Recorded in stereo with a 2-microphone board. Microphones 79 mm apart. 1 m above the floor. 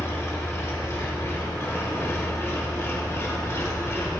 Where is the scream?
I don't hear a scream.